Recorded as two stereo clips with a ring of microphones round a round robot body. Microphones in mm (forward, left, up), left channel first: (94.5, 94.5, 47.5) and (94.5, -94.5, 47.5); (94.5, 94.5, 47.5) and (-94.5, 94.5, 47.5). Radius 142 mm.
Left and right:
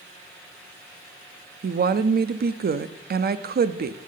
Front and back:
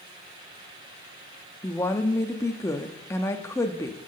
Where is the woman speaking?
75° right, 0.7 m.